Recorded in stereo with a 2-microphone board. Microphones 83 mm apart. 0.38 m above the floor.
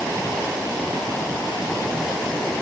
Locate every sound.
Only background noise.